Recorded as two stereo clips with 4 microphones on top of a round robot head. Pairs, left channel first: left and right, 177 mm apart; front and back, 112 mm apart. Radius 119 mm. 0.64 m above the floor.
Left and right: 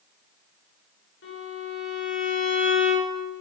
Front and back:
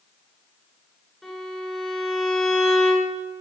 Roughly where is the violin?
Left.